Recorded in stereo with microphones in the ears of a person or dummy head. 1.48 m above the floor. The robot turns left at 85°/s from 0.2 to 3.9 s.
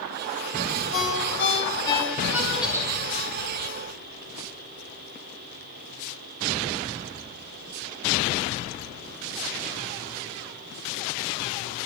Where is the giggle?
5° left (ahead or behind), 5.5 m; by 2.9 s 20° right (ahead or behind), 5.5 m.